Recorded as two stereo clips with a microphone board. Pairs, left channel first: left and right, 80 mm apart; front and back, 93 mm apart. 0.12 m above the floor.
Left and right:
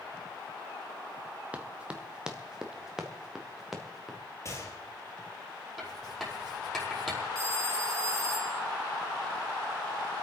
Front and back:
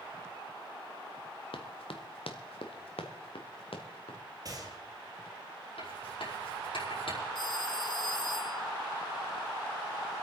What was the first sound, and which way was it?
Running footsteps, 15° right.